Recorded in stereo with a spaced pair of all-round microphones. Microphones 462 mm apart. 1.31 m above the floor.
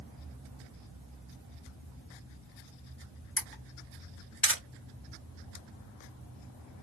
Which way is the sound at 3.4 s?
30° left (ahead or behind).